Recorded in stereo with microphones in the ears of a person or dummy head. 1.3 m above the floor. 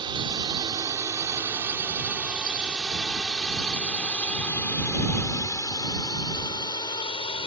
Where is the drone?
25° right (ahead or behind); by 7.5 s 25° left (ahead or behind).